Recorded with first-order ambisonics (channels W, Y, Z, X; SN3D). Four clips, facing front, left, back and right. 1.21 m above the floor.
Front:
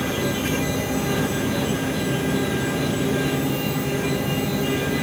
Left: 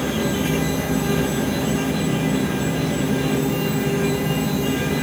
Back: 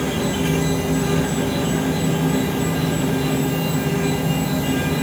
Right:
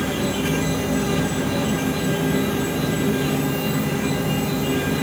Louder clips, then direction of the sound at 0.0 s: Left 1 dB, back 2 dB; straight behind.